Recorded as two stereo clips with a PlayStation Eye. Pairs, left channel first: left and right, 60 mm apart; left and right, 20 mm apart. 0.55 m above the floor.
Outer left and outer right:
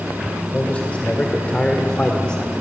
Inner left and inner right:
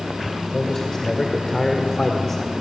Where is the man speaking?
25° left (ahead or behind), 2 m; by 2.5 s 15° left (ahead or behind), 1.3 m.